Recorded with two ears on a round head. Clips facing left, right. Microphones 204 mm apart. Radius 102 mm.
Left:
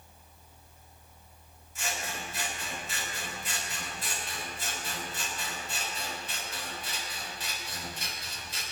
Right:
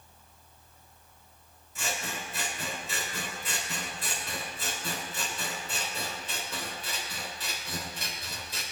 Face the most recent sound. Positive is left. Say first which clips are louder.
# right 1 dB
turn(degrees=-75)  # may be behind; listen again after turning